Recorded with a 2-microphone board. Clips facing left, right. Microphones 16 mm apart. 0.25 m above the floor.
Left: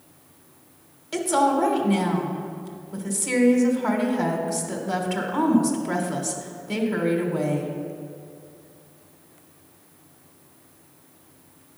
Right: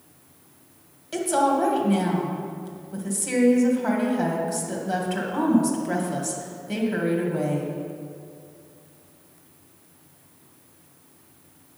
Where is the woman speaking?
5° left (ahead or behind), 1.2 m.